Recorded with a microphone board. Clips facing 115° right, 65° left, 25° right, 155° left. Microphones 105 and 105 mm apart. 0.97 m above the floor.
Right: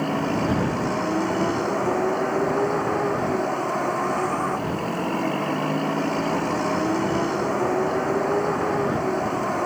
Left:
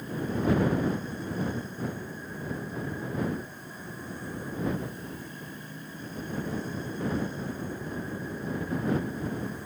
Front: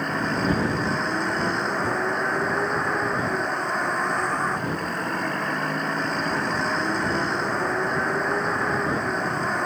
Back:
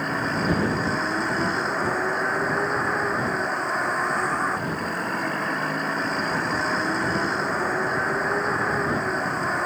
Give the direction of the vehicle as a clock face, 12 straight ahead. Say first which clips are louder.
Right 7 dB, even; 4 o'clock.